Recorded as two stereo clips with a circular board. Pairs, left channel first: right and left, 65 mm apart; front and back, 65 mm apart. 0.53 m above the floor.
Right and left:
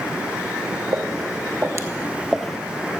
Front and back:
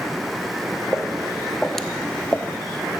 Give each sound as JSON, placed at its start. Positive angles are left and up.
{"t": 0.9, "sound": "footsteps", "azimuth_deg": 95, "distance_m": 1.3}